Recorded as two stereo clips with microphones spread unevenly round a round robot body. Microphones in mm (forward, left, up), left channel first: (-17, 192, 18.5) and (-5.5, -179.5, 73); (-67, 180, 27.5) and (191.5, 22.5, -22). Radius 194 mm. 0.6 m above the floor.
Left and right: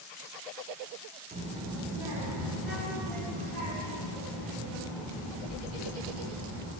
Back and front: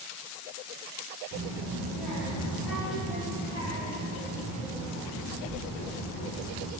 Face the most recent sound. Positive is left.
turn(degrees=170)